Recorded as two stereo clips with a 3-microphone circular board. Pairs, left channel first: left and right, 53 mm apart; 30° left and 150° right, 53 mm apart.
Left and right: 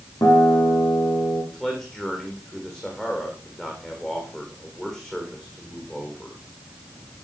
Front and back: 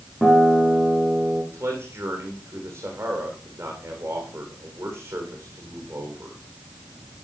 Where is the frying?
I don't hear frying.